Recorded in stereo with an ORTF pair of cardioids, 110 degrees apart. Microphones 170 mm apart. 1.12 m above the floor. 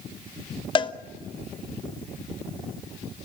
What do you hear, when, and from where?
0.8 s a cowbell: 30° left, 1.0 m